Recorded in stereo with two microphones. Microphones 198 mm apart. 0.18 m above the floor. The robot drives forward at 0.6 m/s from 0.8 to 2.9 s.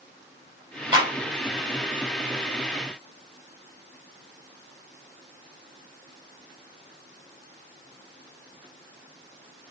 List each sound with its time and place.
0.9 s a clap: 25° right (ahead or behind), 5.5 m